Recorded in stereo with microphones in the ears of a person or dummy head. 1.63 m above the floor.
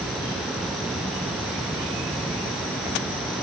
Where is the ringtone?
I don't hear a ringtone.